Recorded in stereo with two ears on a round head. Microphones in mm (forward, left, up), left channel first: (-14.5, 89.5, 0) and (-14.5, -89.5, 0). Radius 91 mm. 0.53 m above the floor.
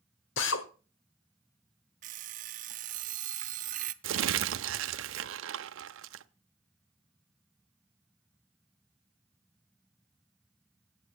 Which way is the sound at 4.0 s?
70° right (ahead or behind).